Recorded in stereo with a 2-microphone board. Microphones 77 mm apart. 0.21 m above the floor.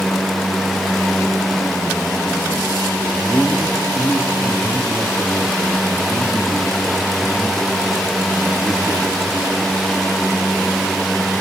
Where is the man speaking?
Centre (ahead or behind), 2.0 m.